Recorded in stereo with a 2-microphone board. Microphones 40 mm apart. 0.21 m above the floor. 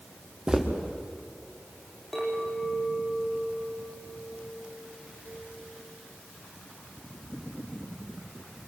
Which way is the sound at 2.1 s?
5° left (ahead or behind).